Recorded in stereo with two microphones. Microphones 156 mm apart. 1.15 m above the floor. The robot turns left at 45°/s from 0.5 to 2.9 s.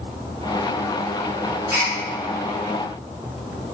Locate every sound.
1.7 s a gasp: 15° right (ahead or behind), 1.2 m; by 1.9 s 25° right (ahead or behind), 1.2 m